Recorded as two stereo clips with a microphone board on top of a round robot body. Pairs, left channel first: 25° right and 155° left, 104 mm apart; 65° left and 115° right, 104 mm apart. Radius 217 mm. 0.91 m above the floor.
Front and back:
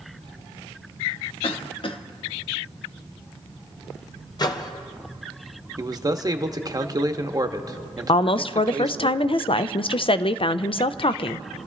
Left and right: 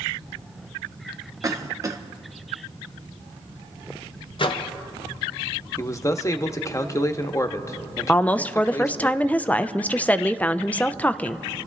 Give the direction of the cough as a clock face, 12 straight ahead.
2 o'clock.